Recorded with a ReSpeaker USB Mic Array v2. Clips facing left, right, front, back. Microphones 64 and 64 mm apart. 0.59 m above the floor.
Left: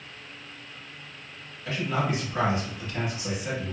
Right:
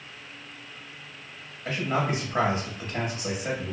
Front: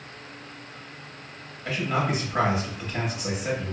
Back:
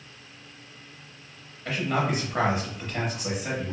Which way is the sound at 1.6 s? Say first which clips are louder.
Right 1 dB, even; 95° right.